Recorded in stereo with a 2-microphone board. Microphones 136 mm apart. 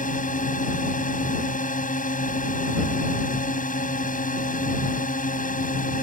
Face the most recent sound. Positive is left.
turn(degrees=80)